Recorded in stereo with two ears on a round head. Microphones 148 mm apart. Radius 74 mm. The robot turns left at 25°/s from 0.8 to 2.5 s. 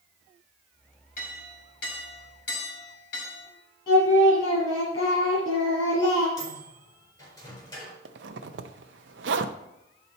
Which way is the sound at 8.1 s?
75° right (ahead or behind).